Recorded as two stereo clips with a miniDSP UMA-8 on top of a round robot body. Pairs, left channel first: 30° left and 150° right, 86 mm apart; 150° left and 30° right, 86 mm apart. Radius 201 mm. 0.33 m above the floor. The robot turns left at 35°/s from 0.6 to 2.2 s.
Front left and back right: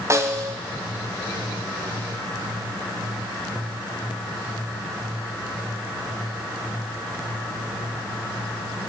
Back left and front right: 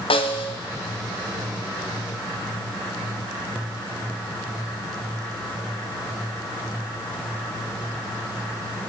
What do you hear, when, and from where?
0.1 s a snare drum: 150° left, 0.9 m